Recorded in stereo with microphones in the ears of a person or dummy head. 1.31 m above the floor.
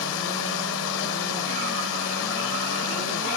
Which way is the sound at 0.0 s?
75° left (ahead or behind).